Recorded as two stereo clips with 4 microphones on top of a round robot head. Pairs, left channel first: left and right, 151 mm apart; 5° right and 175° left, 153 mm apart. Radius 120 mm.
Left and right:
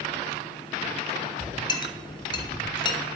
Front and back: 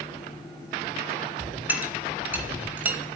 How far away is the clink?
About 0.5 m.